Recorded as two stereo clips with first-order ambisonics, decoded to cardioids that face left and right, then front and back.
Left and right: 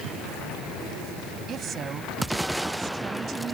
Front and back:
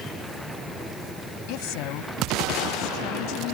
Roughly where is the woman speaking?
Ahead right.